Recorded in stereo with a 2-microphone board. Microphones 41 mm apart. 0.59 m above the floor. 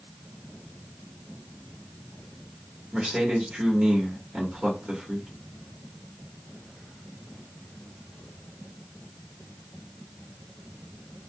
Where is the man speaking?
35° right (ahead or behind), 1.4 m.